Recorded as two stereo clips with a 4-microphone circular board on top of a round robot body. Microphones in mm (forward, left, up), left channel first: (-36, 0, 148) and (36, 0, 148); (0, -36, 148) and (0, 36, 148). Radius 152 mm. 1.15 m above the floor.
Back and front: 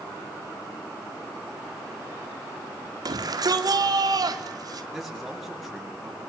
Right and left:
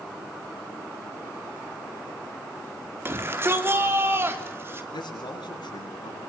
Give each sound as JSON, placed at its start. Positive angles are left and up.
{"t": 3.0, "sound": "a shout", "azimuth_deg": 30, "distance_m": 4.0}
{"t": 4.9, "sound": "a man speaking", "azimuth_deg": -90, "distance_m": 8.5}